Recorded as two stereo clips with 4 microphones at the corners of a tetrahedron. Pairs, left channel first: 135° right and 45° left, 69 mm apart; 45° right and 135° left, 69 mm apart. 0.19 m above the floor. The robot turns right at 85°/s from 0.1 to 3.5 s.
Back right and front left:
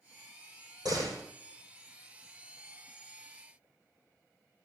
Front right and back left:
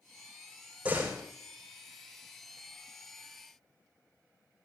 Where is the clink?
No clink in this recording.